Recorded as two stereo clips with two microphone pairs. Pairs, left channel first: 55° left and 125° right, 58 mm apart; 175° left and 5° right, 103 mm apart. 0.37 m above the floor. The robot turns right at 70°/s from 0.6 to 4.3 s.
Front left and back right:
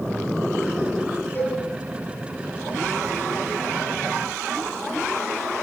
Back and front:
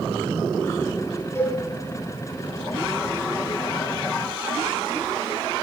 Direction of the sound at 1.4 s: 110° left.